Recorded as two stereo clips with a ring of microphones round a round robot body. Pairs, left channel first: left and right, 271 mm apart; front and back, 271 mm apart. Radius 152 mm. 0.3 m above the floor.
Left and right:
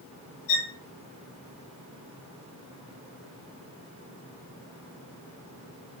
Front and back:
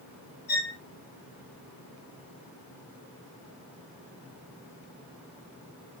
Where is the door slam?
No door slam in this recording.